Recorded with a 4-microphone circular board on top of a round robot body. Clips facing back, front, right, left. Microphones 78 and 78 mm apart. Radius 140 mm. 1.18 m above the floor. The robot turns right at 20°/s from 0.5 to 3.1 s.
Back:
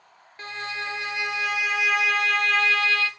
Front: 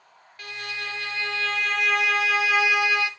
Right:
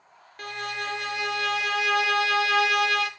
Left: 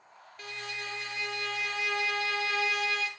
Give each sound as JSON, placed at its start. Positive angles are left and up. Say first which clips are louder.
{"t": 0.4, "sound": "a violin", "louder": "back 3 dB, right 8 dB", "azimuth_deg": -120, "distance_m": 0.6}